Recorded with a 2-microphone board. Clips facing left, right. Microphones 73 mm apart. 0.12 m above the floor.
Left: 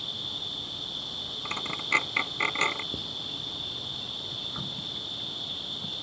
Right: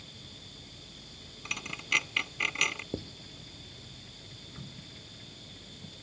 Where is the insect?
75° left (ahead or behind).